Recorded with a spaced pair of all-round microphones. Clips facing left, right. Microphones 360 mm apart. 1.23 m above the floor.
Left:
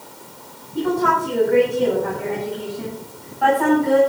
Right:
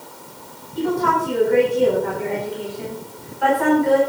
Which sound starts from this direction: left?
A woman speaking, at 0.8 s.